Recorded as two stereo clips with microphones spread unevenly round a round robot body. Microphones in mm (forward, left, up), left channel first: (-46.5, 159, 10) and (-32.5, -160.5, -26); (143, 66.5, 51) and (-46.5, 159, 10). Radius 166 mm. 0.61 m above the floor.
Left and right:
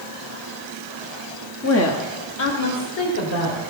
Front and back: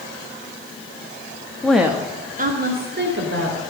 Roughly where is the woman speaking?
Ahead left.